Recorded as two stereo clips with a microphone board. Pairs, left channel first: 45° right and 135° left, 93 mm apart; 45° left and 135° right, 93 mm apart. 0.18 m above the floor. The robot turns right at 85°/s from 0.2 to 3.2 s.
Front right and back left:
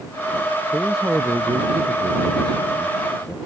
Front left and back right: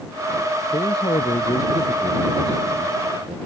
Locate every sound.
0.7 s a man speaking: 25° left; by 3.4 s 125° right